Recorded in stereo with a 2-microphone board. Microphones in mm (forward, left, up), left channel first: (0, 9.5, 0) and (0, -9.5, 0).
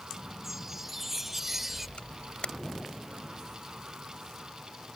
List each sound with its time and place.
0.4 s a chime: 10° right (ahead or behind)
2.0 s a camera shutter: 65° left (ahead or behind)